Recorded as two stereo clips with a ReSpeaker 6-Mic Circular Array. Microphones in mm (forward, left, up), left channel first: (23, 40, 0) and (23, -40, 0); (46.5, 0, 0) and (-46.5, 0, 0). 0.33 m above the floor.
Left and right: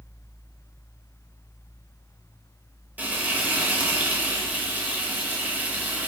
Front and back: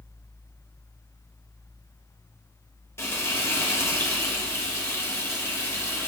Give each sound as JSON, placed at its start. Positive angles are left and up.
{"t": 3.0, "sound": "frying", "azimuth_deg": -35, "distance_m": 0.5}